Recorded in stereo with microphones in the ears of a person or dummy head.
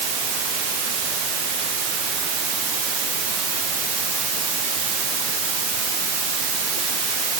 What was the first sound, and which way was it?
Only background noise.